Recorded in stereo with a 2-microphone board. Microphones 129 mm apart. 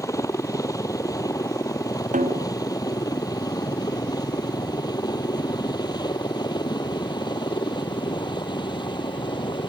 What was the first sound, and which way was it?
A helicopter, 25° left (ahead or behind).